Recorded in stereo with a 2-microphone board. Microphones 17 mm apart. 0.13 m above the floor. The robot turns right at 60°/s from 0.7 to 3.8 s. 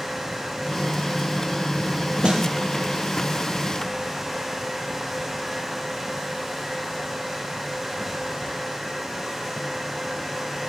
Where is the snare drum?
65° right (ahead or behind), 1.5 m; by 2.4 s 55° right (ahead or behind), 1.5 m.